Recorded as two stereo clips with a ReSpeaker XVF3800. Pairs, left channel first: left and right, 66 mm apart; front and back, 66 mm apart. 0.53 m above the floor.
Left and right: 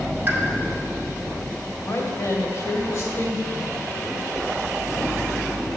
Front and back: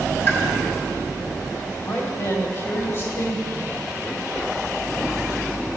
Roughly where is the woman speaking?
Ahead left.